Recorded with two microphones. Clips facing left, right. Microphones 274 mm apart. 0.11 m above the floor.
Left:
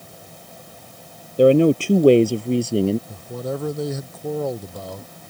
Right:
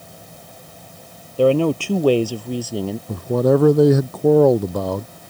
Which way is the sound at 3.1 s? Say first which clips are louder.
Right 12 dB; 70° right (ahead or behind).